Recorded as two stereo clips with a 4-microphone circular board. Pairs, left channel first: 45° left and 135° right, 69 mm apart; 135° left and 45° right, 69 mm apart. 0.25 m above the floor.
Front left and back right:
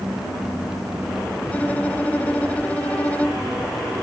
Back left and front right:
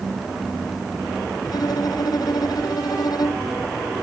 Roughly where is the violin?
Behind left.